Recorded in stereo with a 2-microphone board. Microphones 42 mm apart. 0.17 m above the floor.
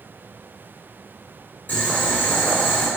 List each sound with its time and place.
1.7 s boiling: 40° left (ahead or behind), 1.4 m